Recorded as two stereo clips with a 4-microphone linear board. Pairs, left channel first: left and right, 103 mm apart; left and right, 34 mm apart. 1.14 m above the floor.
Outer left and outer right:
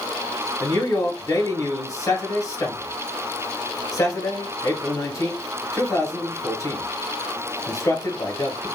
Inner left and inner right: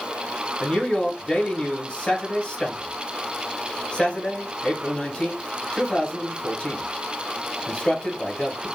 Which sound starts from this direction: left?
A man speaking, at 0.6 s.